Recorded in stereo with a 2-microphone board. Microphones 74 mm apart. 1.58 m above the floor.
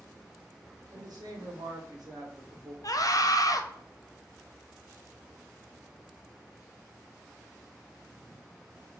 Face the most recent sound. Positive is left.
turn(degrees=55)  # may be behind; listen again after turning